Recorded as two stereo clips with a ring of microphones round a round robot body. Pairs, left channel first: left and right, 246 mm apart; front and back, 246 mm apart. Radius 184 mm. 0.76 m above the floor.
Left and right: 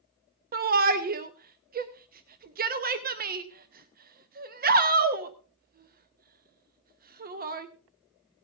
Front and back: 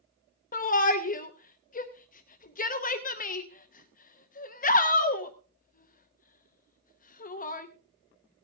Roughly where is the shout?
Ahead right.